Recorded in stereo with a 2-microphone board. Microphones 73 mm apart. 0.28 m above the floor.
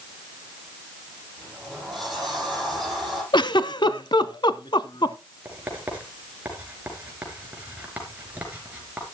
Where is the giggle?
75° left (ahead or behind), 0.7 m.